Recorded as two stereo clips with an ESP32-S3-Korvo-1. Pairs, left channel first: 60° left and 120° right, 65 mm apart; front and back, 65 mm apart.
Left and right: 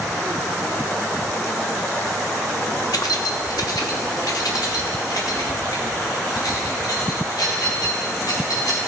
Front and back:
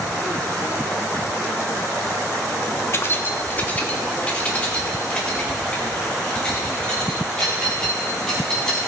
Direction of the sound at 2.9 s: 45° left.